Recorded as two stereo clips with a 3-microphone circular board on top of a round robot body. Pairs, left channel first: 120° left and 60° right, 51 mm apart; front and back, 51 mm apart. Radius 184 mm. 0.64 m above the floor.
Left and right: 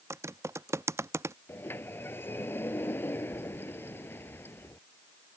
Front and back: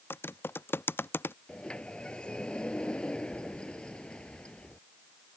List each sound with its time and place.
0.1 s typing on a keyboard: 40° right
1.5 s a sliding door: 75° left